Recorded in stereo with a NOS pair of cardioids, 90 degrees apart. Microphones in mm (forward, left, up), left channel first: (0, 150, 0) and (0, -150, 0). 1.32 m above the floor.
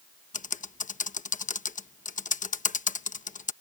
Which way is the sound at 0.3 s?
25° left.